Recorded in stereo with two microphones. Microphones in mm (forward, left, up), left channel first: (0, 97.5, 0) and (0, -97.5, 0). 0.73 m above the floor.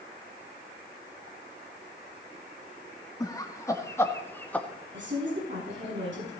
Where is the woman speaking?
75° right (ahead or behind), 6 m.